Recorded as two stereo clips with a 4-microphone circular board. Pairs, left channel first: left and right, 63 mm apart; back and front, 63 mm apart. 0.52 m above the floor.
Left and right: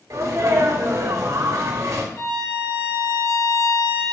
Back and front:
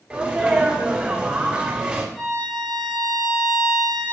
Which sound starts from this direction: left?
A violin, at 2.1 s.